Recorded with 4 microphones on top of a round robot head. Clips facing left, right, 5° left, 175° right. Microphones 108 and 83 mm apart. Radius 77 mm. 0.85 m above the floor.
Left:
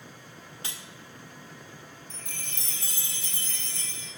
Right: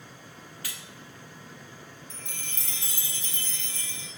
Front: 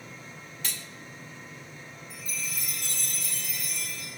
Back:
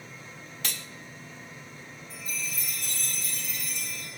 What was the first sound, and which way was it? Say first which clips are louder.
Cutlery clinking: left 3 dB, back 2 dB; 160° left.